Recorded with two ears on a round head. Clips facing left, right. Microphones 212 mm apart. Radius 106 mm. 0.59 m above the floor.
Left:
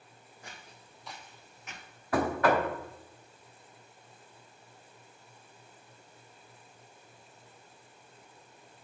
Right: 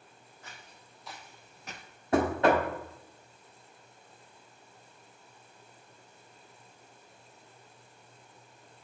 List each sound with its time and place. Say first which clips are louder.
0.4 s footsteps: left 2 dB; 15° left (ahead or behind), 1.9 m; by 1.9 s 45° right (ahead or behind), 0.9 m
2.1 s knocking: right 2 dB; 20° right (ahead or behind), 0.9 m